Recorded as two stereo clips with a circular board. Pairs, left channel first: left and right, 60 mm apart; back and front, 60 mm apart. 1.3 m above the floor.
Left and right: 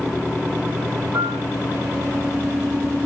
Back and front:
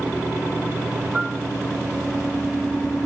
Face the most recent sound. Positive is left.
turn(degrees=-80)